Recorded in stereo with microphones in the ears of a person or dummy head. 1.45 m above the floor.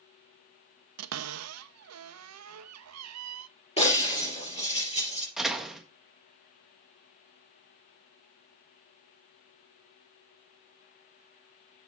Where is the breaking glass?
35° left (ahead or behind), 5 m.